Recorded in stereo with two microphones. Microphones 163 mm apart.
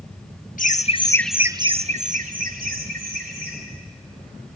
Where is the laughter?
55° left (ahead or behind), 1.2 m; by 3.6 s 70° right (ahead or behind), 3.5 m.